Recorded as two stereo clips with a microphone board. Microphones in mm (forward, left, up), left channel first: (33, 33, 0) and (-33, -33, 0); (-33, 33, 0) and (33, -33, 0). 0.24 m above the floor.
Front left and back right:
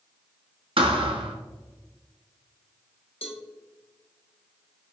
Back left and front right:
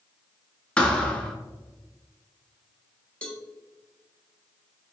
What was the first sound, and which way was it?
A thud, 145° right.